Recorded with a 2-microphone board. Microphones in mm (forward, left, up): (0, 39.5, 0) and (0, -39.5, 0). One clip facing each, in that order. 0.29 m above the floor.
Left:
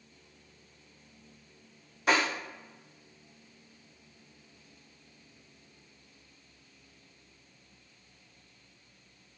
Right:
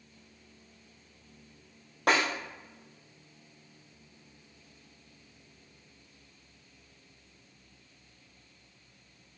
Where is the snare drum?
75° right (ahead or behind), 1.9 m.